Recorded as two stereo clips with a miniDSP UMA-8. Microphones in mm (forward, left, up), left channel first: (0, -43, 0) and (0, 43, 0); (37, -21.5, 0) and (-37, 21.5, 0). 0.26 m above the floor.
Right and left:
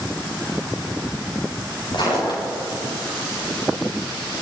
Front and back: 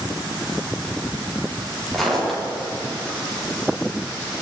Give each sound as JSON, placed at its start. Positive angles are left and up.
{"t": 1.9, "sound": "footsteps", "azimuth_deg": -120, "distance_m": 8.5}